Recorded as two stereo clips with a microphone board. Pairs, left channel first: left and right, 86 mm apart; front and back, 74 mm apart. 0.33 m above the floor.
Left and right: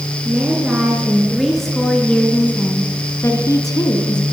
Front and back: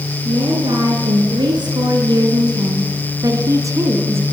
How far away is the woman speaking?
About 5.5 m.